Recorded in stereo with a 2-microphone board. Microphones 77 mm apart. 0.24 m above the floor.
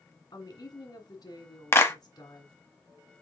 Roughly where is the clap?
Left.